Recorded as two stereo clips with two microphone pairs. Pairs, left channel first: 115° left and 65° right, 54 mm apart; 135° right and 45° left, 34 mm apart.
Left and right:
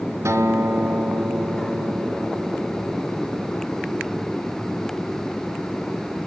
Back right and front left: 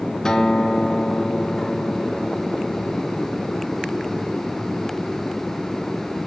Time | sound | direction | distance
0.2 | a guitar | 70° right | 4 m